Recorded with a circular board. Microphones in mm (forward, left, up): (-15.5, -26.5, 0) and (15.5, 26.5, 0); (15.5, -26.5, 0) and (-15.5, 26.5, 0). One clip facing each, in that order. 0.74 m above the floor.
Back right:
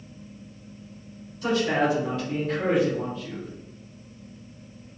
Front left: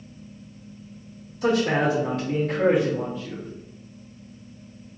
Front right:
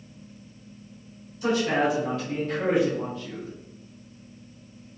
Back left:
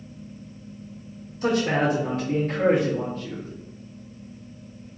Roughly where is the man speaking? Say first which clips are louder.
Front left 2 dB, back left 1 dB; left.